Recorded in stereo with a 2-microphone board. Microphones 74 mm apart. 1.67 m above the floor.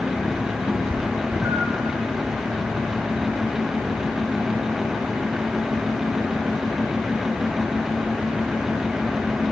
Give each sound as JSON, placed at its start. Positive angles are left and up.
{"t": 0.7, "sound": "a cat meowing", "side_deg": -30, "distance_m": 7.5}